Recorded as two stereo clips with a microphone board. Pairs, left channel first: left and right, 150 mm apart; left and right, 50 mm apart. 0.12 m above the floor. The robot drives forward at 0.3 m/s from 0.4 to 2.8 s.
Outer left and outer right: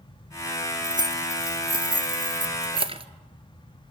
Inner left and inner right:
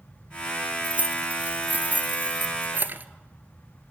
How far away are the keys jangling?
About 1.5 m.